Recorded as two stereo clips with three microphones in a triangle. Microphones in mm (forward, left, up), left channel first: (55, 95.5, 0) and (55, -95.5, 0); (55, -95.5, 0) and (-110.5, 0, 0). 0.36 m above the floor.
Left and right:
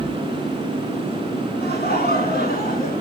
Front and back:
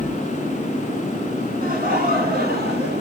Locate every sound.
1.6 s laughter: 115° left, 4 m; by 3.0 s 125° left, 4 m